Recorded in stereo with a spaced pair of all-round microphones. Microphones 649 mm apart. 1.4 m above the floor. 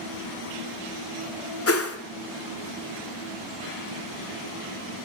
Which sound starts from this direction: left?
A whoosh, at 1.7 s.